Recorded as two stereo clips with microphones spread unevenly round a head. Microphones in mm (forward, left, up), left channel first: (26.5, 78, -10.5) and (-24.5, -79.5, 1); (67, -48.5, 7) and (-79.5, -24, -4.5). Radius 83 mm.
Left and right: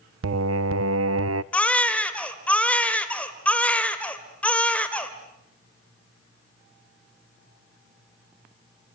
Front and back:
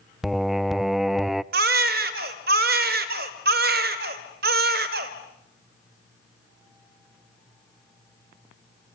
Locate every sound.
0.2 s singing: 100° right, 0.6 m
1.5 s a baby crying: 155° left, 1.6 m